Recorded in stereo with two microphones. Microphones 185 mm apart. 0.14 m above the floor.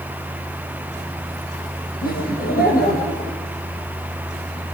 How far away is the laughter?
About 6 m.